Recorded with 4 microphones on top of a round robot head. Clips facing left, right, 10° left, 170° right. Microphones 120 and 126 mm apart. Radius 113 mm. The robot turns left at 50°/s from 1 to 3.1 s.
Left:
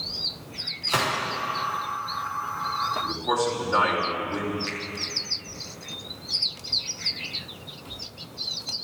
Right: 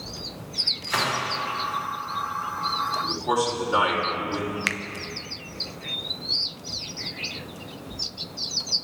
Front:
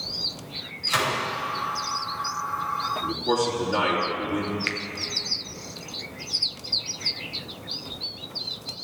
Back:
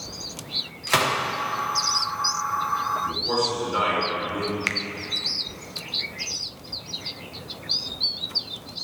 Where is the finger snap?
115° right, 0.6 m.